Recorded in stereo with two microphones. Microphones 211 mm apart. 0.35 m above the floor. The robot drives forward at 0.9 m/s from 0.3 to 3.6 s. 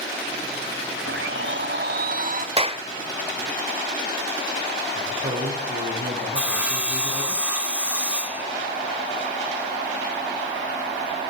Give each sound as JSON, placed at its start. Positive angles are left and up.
{"t": 1.1, "sound": "a blender", "side_deg": -70, "distance_m": 1.1}
{"t": 2.6, "sound": "a clap", "side_deg": -25, "distance_m": 1.1}
{"t": 5.0, "sound": "a man speaking", "side_deg": -55, "distance_m": 6.5}
{"t": 6.3, "sound": "sawing", "side_deg": -5, "distance_m": 1.9}